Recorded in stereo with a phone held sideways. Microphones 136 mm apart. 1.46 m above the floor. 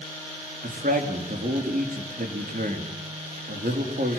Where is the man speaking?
85° right, 3.5 m.